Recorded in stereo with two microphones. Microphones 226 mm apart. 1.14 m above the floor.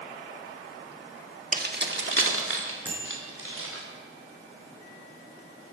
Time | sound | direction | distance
1.5 | keys jangling | 40° right (ahead or behind) | 1.2 m
2.9 | a bicycle bell | 10° right (ahead or behind) | 10 m